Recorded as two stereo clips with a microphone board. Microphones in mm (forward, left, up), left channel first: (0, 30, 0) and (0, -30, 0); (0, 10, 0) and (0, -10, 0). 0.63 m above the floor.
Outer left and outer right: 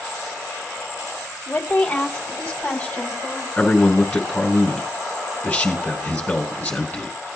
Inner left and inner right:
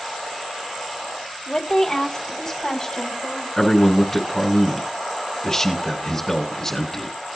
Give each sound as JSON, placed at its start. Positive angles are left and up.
{"t": 1.5, "sound": "a woman speaking", "side_deg": 20, "distance_m": 3.0}
{"t": 3.6, "sound": "a man speaking", "side_deg": 25, "distance_m": 4.5}